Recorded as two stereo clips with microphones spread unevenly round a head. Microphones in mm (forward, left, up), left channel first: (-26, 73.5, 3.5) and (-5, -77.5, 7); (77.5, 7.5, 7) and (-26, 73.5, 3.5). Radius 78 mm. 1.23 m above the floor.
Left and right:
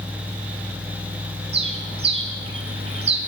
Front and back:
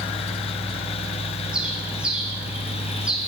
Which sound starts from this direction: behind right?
A bird, at 1.5 s.